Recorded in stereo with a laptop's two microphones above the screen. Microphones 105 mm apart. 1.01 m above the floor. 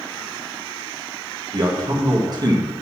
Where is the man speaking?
40° right (ahead or behind), 1.5 m.